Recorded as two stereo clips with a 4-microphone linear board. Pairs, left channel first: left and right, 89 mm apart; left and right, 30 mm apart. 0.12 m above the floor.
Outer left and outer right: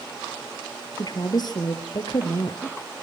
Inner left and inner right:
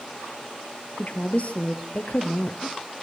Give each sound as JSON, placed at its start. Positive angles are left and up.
{"t": 1.0, "sound": "a woman speaking", "side_deg": 50, "distance_m": 3.0}